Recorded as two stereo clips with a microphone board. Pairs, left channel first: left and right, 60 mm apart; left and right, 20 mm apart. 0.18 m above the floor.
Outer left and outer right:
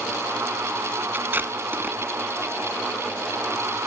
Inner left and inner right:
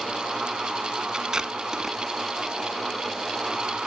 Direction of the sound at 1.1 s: 40° right (ahead or behind).